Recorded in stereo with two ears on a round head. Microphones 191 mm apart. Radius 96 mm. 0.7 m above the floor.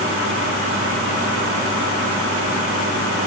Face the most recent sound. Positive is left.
No sound to turn to.